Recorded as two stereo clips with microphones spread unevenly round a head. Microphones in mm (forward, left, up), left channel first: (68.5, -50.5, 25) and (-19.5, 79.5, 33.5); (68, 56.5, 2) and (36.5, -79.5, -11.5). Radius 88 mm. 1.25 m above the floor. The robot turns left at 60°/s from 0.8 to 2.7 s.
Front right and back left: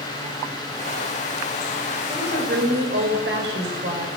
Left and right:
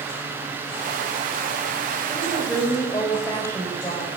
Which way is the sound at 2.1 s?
175° right.